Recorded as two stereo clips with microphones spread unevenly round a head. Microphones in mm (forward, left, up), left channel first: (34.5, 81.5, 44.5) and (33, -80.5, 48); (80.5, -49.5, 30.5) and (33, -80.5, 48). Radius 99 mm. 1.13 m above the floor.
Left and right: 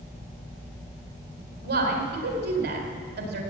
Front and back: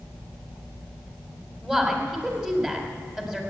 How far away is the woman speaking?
About 4 m.